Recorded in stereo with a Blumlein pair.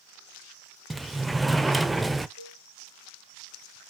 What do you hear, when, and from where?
0.9 s a sliding door: 10° right, 0.5 m
2.4 s a cowbell: 65° right, 1.5 m